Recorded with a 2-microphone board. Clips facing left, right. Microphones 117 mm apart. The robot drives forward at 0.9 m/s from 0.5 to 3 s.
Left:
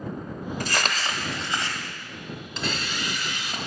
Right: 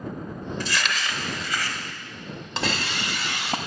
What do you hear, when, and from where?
0.6 s crumpling: 50° left (ahead or behind), 0.7 m; by 1.8 s 25° left (ahead or behind), 1.3 m
2.6 s a hiss: 70° right (ahead or behind), 0.6 m